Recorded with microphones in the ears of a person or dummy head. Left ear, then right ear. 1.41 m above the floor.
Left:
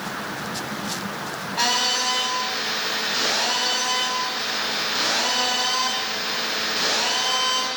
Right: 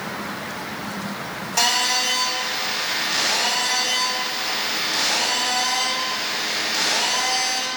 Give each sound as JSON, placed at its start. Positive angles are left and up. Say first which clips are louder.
{"t": 1.6, "sound": "a phone buzzing", "louder": "right 2 dB", "side_deg": -60, "distance_m": 3.0}